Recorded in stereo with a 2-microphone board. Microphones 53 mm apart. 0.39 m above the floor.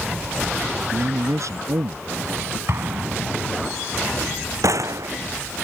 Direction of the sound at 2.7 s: 55° right (ahead or behind).